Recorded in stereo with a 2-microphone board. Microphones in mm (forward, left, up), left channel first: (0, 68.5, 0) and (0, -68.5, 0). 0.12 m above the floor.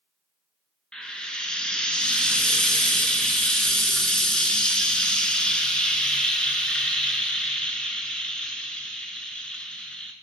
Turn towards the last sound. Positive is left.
turn(degrees=5)  # may be behind; listen again after turning